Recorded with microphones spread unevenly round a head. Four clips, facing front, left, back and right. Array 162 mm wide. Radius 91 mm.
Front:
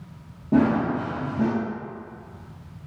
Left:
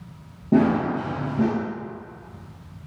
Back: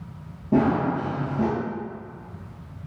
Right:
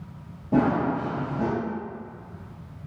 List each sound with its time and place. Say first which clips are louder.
0.5 s running footsteps: left 3 dB, front 1 dB; 75° left, 1.6 m